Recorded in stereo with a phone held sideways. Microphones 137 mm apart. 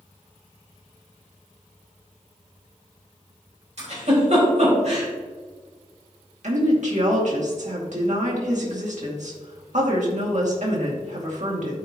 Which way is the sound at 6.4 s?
65° right (ahead or behind).